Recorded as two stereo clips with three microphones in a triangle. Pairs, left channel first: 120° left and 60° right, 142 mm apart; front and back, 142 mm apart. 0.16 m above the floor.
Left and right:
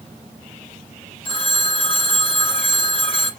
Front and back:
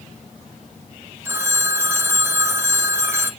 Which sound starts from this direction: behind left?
A phone ringing, at 1.2 s.